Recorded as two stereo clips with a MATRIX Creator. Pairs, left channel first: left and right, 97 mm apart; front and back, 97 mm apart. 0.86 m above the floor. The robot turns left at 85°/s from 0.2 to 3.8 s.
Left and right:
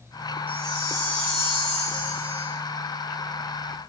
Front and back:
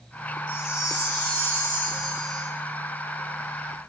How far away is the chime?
About 3 m.